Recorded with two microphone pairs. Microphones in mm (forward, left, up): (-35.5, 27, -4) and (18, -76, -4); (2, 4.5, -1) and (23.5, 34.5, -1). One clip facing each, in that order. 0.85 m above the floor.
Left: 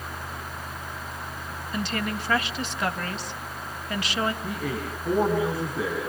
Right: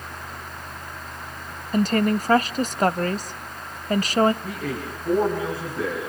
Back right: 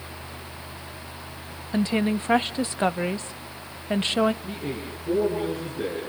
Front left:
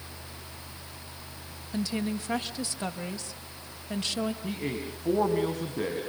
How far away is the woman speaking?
About 1.0 m.